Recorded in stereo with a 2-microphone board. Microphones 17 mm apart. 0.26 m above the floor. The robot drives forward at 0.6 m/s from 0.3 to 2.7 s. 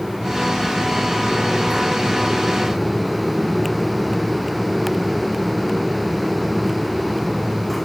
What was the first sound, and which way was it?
Only background noise.